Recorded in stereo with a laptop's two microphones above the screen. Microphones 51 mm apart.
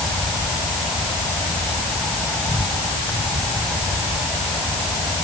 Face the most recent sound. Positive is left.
turn(degrees=25)  # may be behind; listen again after turning